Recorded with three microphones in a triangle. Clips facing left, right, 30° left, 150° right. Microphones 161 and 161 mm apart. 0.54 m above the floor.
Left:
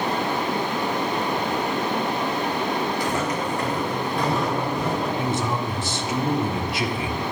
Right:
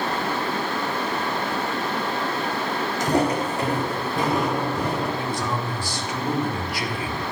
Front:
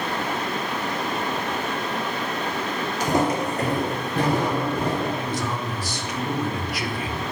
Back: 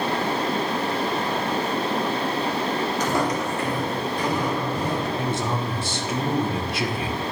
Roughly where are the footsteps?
Ahead right.